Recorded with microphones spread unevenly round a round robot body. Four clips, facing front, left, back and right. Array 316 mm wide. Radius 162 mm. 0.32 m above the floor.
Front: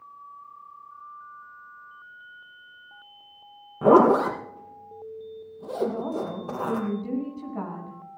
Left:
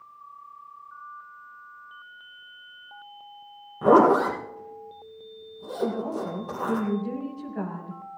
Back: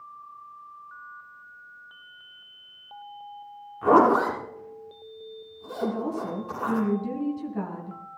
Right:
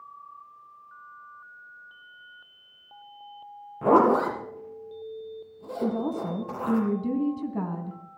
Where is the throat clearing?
No throat clearing in this recording.